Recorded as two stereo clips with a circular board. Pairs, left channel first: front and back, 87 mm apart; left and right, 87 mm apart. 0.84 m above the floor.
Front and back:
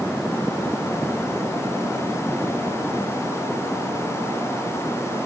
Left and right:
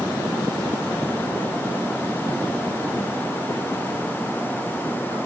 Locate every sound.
Only background noise.